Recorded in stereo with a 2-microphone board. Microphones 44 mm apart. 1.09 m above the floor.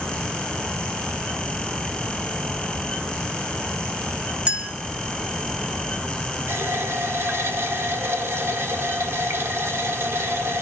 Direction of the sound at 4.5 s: 25° right (ahead or behind).